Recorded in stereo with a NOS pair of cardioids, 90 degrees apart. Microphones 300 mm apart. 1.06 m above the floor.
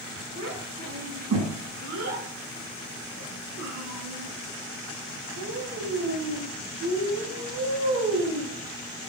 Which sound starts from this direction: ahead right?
A child speaking, at 0.3 s.